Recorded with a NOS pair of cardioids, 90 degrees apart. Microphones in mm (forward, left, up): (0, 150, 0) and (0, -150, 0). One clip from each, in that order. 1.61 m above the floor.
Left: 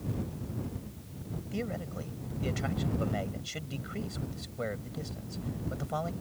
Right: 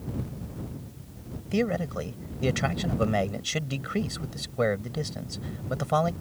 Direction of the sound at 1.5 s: 65° right.